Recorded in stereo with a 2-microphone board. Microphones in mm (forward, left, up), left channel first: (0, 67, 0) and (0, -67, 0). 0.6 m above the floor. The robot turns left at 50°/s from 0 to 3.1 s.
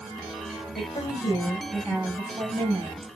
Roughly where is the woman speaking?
Ahead left.